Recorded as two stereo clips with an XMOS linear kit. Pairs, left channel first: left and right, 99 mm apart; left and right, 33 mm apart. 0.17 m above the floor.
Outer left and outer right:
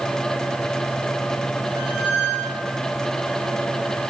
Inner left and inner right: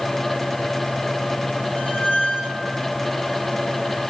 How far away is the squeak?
About 4 m.